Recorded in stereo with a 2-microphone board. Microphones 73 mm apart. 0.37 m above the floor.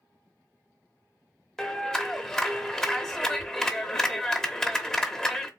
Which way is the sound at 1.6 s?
5° left (ahead or behind).